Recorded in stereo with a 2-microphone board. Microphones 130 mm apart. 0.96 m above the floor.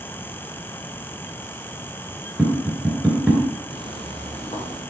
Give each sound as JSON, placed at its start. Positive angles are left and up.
{"t": 2.4, "sound": "tapping", "side_deg": -5, "distance_m": 3.0}
{"t": 3.7, "sound": "footsteps", "side_deg": 40, "distance_m": 2.0}